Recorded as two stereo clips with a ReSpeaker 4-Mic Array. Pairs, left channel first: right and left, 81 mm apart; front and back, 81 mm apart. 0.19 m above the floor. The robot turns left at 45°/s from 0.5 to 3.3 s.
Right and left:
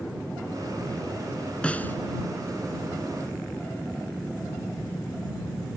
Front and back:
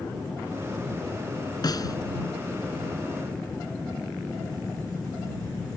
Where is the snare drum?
15° right; by 2.0 s 30° right.